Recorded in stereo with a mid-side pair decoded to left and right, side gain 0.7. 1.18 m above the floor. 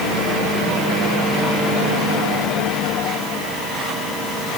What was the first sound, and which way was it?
Only background noise.